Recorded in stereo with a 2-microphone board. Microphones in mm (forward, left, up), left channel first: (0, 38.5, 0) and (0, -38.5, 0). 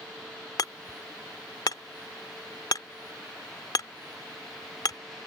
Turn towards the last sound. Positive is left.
turn(degrees=55)  # may be behind; listen again after turning